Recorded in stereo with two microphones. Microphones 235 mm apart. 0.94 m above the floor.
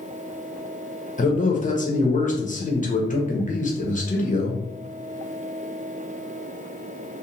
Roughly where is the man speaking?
Left.